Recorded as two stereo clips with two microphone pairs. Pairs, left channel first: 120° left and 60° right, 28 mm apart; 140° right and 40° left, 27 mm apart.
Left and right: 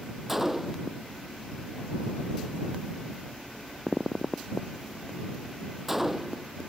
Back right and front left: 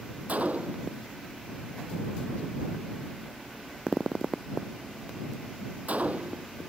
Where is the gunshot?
20° left.